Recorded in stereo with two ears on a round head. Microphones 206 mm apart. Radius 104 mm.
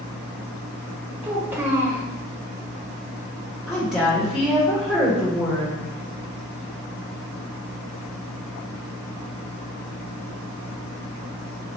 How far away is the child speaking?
About 1.3 m.